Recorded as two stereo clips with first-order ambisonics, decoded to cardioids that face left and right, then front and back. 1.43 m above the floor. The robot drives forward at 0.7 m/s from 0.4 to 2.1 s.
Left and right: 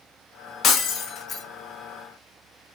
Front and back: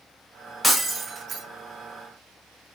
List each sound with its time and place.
0.6 s breaking glass: 80° left, 0.8 m; by 1.4 s 135° left, 1.0 m